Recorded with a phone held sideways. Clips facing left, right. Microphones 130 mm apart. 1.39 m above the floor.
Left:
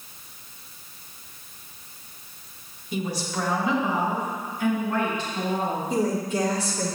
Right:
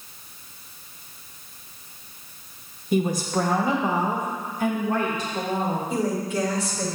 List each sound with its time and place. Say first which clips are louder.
2.9 s a woman speaking: right 6 dB; 50° right (ahead or behind), 0.8 m; by 5.8 s 40° right (ahead or behind), 2 m
5.9 s a woman speaking: left 1 dB; 40° left (ahead or behind), 2 m